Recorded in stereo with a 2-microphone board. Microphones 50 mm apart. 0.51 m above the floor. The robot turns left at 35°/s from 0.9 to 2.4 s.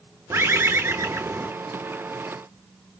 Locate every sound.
0.3 s a bird: 60° right (ahead or behind), 0.7 m; by 1.5 s 55° right (ahead or behind), 0.7 m